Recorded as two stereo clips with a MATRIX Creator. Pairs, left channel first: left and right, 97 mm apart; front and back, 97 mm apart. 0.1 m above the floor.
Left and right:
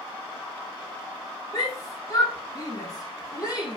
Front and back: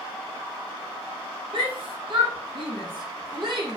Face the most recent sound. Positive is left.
turn(degrees=140)